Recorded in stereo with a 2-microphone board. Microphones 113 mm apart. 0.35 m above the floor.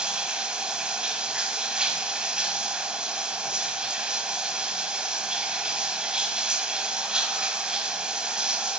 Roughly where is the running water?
Centre.